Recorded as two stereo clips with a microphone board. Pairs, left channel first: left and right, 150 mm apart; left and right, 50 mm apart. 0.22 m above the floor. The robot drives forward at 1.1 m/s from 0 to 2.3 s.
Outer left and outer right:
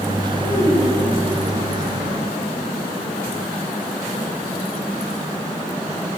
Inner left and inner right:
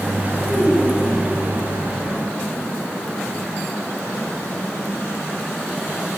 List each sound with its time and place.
0.4 s a child speaking: 20° left (ahead or behind), 3.5 m; by 1.4 s 15° left (ahead or behind), 4.5 m